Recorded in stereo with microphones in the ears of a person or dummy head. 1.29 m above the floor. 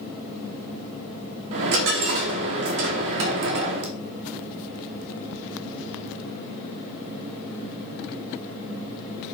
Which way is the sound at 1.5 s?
60° right (ahead or behind).